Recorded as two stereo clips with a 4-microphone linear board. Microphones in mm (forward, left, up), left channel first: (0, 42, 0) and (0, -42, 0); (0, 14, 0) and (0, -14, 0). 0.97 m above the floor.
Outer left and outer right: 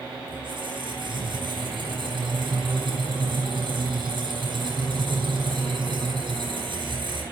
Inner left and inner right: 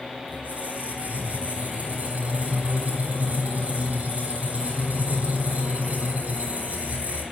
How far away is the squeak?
About 6.5 m.